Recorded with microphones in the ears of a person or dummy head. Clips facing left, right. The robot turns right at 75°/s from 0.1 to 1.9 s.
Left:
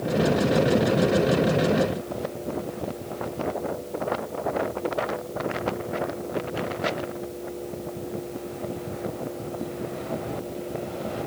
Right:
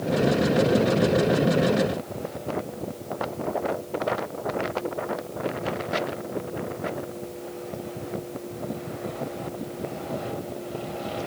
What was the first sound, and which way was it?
Only background noise.